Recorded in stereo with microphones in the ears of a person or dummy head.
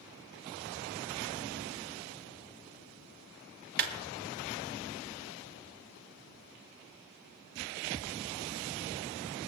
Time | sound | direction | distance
3.8 | a clap | 55° right (ahead or behind) | 1.6 m